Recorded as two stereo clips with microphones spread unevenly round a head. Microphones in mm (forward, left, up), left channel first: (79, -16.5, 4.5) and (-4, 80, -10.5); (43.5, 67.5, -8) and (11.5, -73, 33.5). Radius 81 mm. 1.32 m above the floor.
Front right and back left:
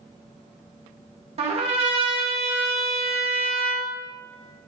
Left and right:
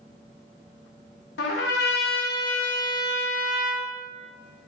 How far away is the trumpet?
About 0.8 m.